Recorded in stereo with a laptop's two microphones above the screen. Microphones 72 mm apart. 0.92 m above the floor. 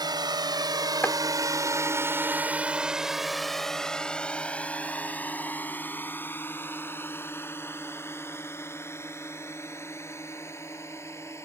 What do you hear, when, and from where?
0.0 s a drone: 80° right; by 11.5 s 40° left (ahead or behind)
1.0 s chopping: 30° left (ahead or behind)